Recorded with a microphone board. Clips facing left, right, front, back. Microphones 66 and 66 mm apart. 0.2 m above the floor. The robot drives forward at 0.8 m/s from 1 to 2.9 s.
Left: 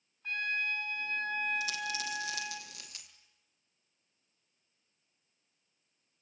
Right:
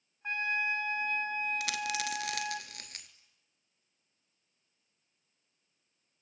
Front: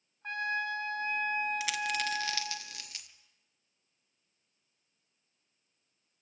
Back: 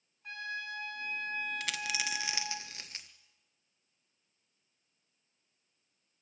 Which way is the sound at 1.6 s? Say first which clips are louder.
Right 2 dB, front 4 dB; 85° right.